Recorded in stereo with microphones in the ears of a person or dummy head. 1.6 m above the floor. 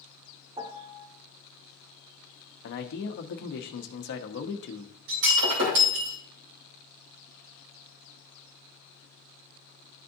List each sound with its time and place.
0.6 s a piano: 25° right (ahead or behind), 0.5 m
2.6 s a man speaking: 55° left (ahead or behind), 1.0 m
5.1 s breaking glass: 65° right (ahead or behind), 2.5 m